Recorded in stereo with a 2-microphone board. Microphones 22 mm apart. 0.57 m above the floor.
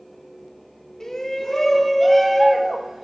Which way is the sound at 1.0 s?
25° left (ahead or behind).